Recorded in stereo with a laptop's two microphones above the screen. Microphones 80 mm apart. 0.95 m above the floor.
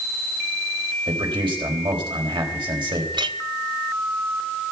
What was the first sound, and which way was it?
A man speaking, 85° right.